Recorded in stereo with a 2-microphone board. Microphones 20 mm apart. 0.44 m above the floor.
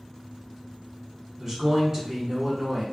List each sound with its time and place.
1.4 s a man speaking: 20° right (ahead or behind), 1.2 m